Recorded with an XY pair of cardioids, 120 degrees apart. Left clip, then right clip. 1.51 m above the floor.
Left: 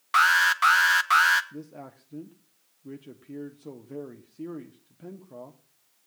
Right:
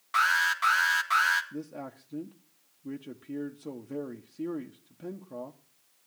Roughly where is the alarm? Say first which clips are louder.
Left 5 dB; ahead left.